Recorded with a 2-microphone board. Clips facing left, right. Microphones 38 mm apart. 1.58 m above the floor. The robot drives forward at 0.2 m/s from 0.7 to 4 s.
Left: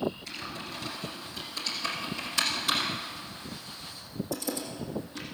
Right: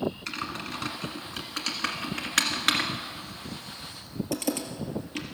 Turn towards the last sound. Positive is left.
turn(degrees=-65)  # may be behind; listen again after turning